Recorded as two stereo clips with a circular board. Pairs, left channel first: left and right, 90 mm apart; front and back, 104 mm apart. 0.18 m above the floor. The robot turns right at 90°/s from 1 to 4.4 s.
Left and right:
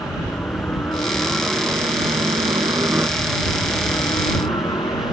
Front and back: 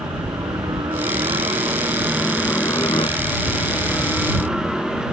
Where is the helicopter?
145° left; by 5.1 s 95° left.